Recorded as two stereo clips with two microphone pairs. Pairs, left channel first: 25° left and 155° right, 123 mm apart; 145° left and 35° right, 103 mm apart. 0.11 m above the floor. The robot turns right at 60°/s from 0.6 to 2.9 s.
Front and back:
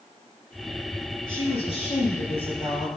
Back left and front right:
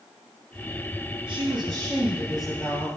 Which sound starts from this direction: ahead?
A woman speaking, at 1.3 s.